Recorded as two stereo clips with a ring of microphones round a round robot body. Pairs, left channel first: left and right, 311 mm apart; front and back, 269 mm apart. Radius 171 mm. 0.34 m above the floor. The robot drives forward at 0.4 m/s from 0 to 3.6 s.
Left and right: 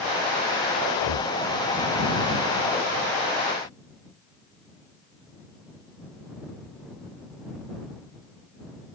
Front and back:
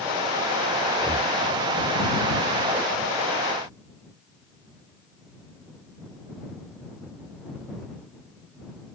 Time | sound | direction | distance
0.9 | breathing | 75° left | ?